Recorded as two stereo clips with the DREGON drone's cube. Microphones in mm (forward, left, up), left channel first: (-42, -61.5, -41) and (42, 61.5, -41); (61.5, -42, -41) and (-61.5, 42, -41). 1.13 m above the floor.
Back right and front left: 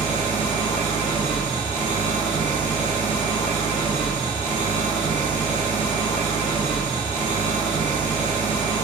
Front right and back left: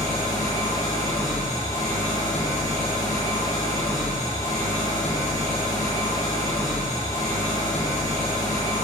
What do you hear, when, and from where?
0.0 s an engine running: 30° left, 0.8 m